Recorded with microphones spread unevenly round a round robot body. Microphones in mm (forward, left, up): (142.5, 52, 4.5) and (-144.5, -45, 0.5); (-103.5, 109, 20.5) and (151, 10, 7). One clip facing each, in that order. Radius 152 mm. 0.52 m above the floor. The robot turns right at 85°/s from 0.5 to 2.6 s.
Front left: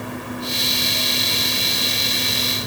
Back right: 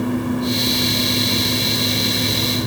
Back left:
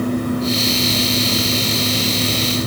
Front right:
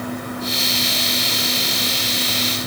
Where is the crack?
No crack in this recording.